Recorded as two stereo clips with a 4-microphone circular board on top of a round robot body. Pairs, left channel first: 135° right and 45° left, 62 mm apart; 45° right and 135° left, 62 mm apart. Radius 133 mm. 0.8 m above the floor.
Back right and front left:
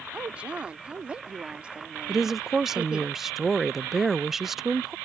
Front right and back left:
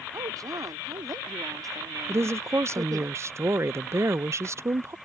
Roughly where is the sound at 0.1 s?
Behind left.